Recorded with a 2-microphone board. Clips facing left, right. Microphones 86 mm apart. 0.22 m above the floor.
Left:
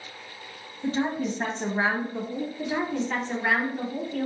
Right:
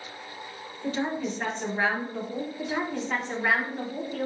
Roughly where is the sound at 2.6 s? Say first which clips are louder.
Left 3 dB; centre.